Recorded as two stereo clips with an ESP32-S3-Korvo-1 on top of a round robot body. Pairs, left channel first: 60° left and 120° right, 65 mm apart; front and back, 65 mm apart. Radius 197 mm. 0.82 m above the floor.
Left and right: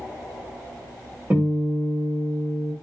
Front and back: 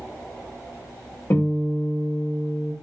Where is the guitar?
50° right, 1.6 m.